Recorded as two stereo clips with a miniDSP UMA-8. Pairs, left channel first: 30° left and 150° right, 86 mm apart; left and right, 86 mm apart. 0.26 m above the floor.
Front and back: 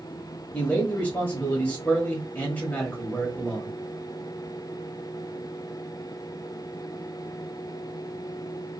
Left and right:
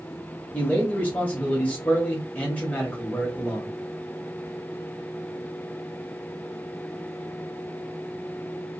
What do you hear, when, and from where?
0.5 s a man speaking: 60° left, 1.0 m